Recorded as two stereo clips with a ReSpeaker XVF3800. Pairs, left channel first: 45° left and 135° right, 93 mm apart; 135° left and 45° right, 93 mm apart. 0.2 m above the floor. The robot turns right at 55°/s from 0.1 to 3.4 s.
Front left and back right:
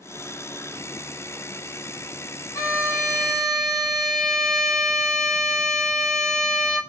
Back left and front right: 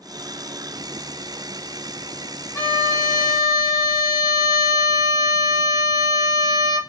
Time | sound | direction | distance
2.5 | a violin | 80° left | 0.6 m